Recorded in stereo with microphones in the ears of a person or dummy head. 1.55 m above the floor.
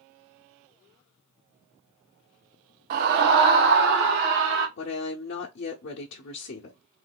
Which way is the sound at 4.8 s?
60° left (ahead or behind).